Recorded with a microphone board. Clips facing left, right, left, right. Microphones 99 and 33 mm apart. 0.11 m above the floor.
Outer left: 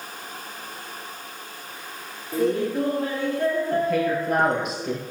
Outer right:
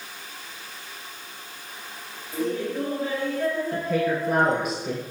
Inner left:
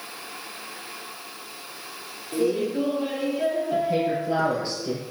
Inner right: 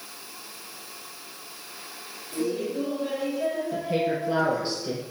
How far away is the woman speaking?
About 2.5 m.